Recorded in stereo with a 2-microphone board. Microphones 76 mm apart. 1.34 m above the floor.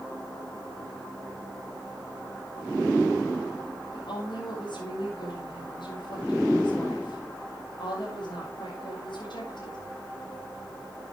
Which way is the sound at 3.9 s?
85° left.